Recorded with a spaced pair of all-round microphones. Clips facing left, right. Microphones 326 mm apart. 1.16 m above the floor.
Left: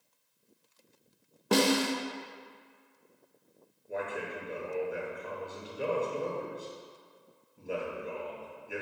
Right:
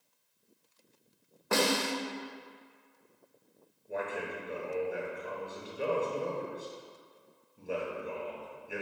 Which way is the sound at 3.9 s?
Centre (ahead or behind).